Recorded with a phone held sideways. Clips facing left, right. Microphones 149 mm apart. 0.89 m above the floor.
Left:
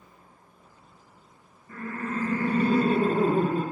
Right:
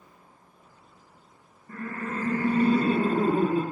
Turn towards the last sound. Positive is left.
turn(degrees=40)  # may be behind; listen again after turning